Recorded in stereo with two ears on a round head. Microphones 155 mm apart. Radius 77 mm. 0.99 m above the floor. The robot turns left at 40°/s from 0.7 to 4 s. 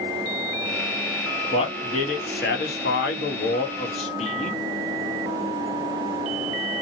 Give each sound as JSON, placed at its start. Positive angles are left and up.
{"t": 1.5, "sound": "a man speaking", "azimuth_deg": 145, "distance_m": 1.0}